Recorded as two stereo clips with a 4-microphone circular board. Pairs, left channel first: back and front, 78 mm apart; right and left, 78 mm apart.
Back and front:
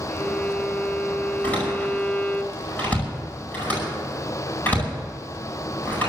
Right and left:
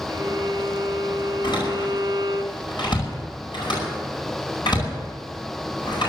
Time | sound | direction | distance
0.1 | a violin | 115° left | 2 m
1.4 | a door slam | 110° right | 9.5 m